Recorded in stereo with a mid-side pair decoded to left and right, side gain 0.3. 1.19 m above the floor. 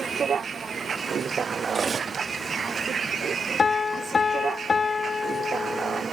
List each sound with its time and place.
0.0 s a vehicle: 70° right
1.7 s cutlery clinking: 65° right
3.6 s a piano: 45° left